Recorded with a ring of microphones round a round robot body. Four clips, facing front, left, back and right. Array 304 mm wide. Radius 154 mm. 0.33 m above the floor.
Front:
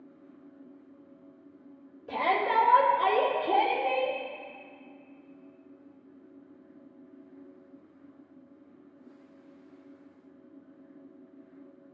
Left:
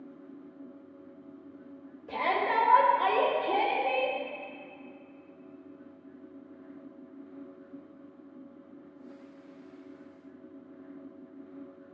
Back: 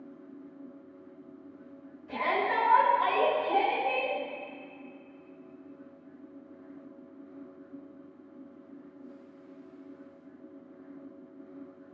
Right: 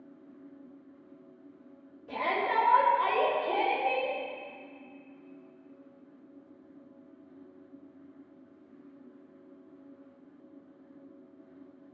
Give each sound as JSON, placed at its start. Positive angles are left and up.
{"t": 2.1, "sound": "a shout", "azimuth_deg": 0, "distance_m": 4.5}